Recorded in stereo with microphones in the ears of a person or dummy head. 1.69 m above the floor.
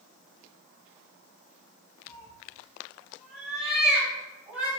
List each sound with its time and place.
2.1 s a cat meowing: 10° left (ahead or behind), 3.5 m; by 4.7 s 10° right (ahead or behind), 6.5 m